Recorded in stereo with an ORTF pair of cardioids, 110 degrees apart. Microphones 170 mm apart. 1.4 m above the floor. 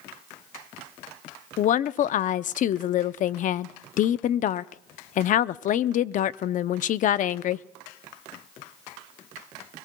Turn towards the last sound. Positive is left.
turn(degrees=50)